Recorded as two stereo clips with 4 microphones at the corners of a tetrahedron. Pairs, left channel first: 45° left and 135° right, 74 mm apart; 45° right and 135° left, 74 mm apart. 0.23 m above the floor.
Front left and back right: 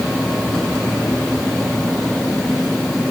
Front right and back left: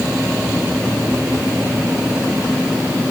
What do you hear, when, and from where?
Only background noise.